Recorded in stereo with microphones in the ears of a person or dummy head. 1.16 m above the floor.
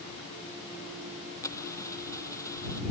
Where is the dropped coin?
15° left (ahead or behind).